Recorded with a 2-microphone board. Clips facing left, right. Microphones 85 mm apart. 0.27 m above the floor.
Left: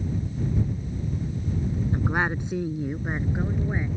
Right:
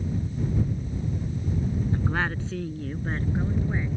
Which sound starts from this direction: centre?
A woman speaking, at 1.9 s.